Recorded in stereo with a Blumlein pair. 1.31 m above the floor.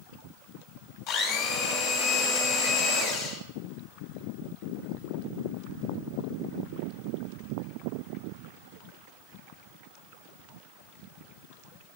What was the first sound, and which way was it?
A blender, 35° left.